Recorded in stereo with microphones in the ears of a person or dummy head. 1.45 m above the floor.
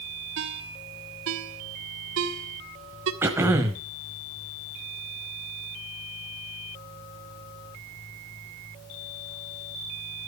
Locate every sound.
0.4 s a ringtone: 65° right (ahead or behind), 1.8 m
3.2 s throat clearing: 10° right (ahead or behind), 1.5 m